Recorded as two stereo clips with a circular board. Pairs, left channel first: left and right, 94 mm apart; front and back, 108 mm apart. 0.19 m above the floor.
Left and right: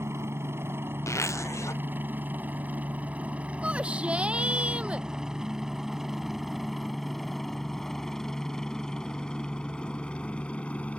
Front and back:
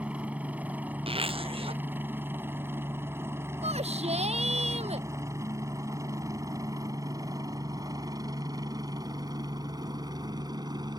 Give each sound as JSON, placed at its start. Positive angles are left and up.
{"t": 0.0, "sound": "a helicopter", "azimuth_deg": -115}
{"t": 1.1, "sound": "a zipper", "azimuth_deg": 145}
{"t": 3.6, "sound": "a shout", "azimuth_deg": -170}